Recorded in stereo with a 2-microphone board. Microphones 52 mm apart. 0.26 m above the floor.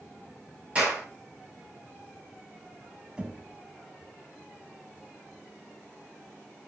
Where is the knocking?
20° right (ahead or behind), 1.4 m.